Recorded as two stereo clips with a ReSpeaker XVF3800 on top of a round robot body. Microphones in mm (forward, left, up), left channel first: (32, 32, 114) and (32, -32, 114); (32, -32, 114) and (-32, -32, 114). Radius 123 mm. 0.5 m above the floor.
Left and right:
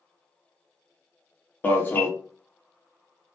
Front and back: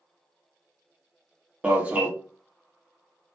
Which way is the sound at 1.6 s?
125° left.